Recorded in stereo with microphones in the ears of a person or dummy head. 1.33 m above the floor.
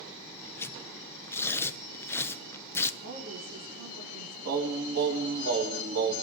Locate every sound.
0.6 s tearing paper: 20° left (ahead or behind), 0.7 m
3.0 s a woman speaking: 60° right (ahead or behind), 4 m
4.5 s singing: 80° right, 4 m